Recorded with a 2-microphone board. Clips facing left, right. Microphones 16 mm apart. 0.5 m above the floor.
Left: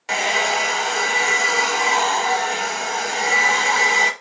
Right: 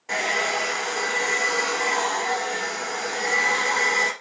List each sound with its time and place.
0.1 s a hair dryer: 80° left, 0.8 m